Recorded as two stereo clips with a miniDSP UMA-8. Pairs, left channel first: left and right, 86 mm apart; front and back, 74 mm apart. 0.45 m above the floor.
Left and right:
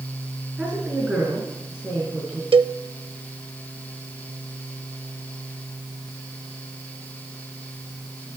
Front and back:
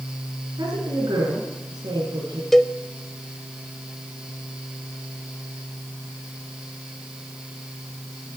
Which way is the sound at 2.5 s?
85° right.